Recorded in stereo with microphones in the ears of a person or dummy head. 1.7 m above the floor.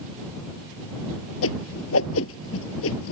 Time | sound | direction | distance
1.4 | a whoosh | 75° left (ahead or behind) | ?